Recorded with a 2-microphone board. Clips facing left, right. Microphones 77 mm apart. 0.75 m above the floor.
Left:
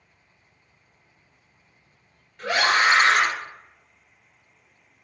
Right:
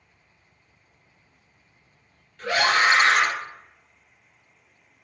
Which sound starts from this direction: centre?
A scream, at 2.4 s.